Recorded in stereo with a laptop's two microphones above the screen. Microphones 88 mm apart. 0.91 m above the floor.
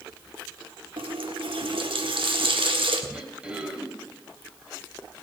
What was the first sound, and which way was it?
A running tap, 85° right.